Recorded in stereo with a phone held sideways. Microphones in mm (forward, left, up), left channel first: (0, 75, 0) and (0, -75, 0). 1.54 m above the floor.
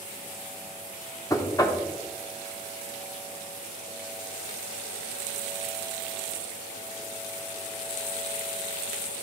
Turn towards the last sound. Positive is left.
turn(degrees=20)  # may be behind; listen again after turning